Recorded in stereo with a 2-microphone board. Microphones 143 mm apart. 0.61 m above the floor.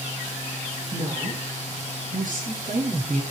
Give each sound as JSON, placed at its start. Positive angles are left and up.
{"t": 0.9, "sound": "a woman speaking", "side_deg": -70, "distance_m": 9.5}